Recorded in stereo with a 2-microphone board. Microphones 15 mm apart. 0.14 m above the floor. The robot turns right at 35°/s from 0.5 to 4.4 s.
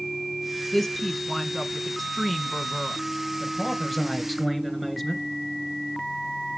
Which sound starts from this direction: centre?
A woman speaking, at 0.7 s.